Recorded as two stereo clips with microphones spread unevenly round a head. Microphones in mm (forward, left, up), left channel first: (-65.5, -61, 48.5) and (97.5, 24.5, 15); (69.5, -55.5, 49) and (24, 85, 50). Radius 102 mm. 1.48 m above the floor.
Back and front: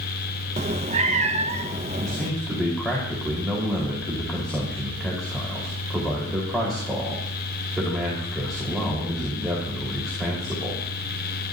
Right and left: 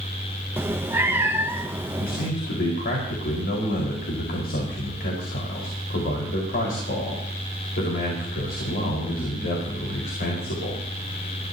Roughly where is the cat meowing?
Ahead left.